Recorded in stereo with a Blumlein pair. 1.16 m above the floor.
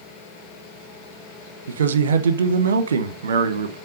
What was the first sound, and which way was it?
A man speaking, 65° right.